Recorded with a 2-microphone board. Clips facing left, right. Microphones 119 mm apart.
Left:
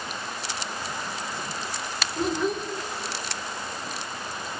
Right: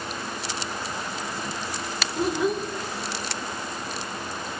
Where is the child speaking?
5° right (ahead or behind), 2 m.